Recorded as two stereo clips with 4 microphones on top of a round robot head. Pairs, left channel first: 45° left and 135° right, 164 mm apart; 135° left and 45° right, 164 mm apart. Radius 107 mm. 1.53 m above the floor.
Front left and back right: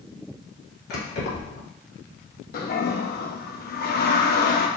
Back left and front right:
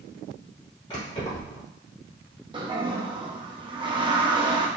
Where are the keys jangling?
70° left, 2.5 m.